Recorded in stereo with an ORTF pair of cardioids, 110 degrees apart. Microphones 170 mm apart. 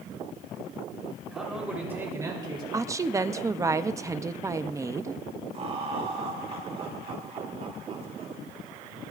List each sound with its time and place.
1.3 s a man speaking: straight ahead, 4 m; by 2.6 s 30° right, 3 m
2.7 s a woman speaking: 20° right, 0.6 m
5.5 s laughter: 40° right, 6 m